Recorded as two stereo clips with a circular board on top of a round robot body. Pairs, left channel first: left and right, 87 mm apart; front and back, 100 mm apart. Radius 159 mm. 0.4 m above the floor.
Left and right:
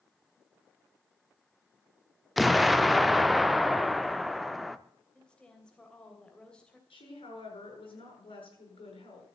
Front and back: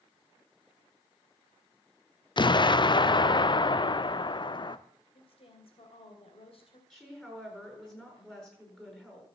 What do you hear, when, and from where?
2.4 s an explosion: straight ahead, 1.0 m
5.1 s a woman speaking: 10° left, 3 m
6.9 s a woman speaking: 85° left, 8 m